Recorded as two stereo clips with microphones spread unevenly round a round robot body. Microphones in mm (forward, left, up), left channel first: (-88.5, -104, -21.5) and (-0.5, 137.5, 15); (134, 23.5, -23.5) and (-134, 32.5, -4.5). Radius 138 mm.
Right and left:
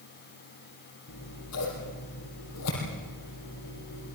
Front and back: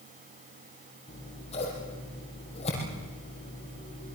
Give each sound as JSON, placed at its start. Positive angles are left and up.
{"t": 1.1, "sound": "scissors", "azimuth_deg": -70, "distance_m": 6.5}